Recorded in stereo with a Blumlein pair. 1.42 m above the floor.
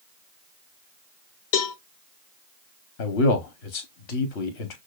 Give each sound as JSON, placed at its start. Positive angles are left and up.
{"t": 1.5, "sound": "a cowbell", "azimuth_deg": 45, "distance_m": 0.6}
{"t": 3.0, "sound": "a man speaking", "azimuth_deg": 45, "distance_m": 0.7}